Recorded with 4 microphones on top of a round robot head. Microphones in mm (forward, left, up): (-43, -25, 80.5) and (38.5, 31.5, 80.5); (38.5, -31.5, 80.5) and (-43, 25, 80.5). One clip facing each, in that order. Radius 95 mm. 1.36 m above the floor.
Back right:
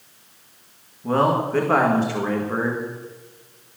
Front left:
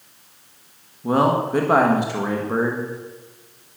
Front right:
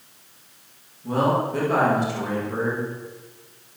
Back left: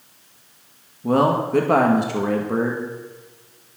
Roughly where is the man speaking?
Left.